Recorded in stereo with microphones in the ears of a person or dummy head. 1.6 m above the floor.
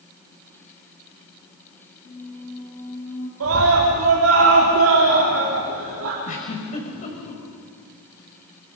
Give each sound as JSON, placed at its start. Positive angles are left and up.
{"t": 2.0, "sound": "a squeak", "side_deg": 35, "distance_m": 3.0}
{"t": 3.4, "sound": "a scream", "side_deg": -85, "distance_m": 3.5}
{"t": 6.2, "sound": "a giggle", "side_deg": 40, "distance_m": 5.0}